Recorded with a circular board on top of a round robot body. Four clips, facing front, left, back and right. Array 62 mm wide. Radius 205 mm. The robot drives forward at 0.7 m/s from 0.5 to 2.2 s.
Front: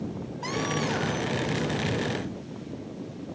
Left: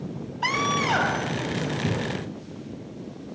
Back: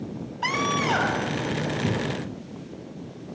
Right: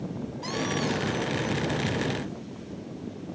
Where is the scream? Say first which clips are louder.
Left 6 dB, back 5 dB; 125° left; by 1.4 s 130° left.